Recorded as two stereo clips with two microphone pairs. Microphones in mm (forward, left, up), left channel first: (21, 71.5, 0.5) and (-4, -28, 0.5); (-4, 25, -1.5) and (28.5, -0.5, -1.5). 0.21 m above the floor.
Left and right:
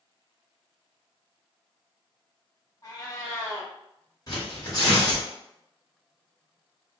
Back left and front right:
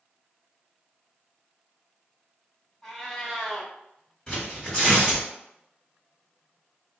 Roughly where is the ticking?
I don't hear ticking.